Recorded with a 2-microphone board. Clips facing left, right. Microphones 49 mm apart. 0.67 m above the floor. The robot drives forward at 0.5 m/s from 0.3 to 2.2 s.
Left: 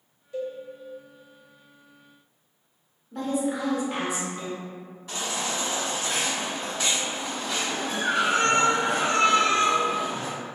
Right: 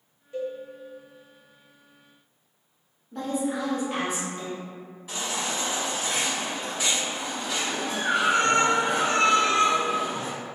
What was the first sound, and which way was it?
A cowbell, 30° right (ahead or behind).